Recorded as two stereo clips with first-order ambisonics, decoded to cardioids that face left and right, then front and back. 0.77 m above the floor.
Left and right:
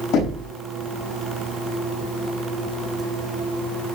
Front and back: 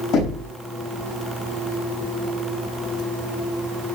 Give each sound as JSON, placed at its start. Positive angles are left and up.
{"t": 0.1, "sound": "knocking", "azimuth_deg": 50, "distance_m": 5.0}